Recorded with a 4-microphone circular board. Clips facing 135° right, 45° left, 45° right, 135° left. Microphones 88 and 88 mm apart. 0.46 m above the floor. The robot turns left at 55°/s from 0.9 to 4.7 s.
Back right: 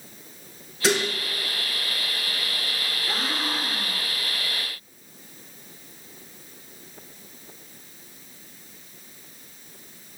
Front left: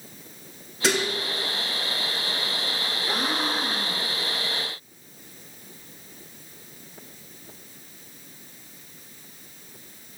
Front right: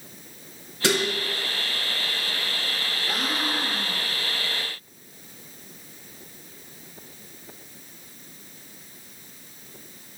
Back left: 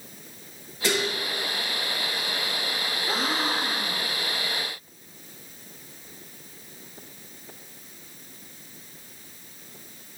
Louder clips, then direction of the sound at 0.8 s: Back right 1 dB, front right 2 dB; 45° right.